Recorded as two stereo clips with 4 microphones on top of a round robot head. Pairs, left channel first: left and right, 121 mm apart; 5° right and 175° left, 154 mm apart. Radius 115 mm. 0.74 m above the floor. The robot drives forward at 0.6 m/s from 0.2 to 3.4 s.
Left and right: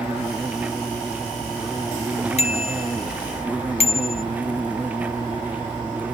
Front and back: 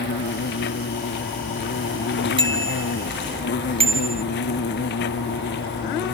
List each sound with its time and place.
0.0 s an insect: 5° right
2.4 s a bicycle bell: 120° left; by 4.2 s 125° left